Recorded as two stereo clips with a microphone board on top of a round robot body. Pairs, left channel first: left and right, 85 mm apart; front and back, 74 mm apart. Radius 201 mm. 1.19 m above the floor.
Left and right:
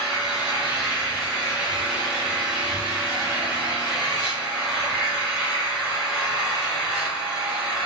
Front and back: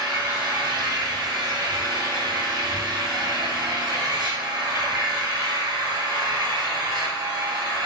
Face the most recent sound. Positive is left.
turn(degrees=-165)